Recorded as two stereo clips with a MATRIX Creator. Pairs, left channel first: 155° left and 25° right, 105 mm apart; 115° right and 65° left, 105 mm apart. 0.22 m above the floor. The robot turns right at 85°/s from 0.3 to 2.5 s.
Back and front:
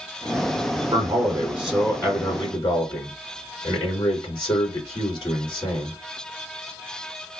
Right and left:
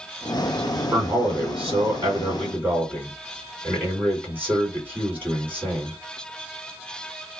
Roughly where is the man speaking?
Ahead.